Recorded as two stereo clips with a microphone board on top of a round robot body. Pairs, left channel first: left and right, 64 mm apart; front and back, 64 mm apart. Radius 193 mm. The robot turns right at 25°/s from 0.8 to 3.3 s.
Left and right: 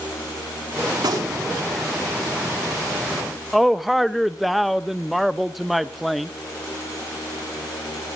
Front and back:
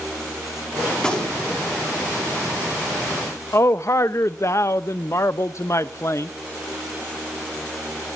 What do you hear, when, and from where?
1.0 s a gunshot: 80° right, 4.5 m; by 1.6 s 65° right, 4.5 m
3.5 s a man speaking: straight ahead, 0.8 m